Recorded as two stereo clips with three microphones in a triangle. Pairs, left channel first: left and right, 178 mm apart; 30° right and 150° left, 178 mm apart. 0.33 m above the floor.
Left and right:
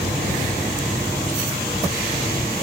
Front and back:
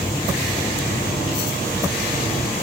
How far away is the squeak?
I don't hear a squeak.